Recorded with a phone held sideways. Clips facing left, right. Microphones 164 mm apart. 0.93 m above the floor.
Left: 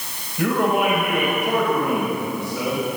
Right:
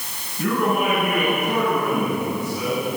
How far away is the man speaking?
About 6 m.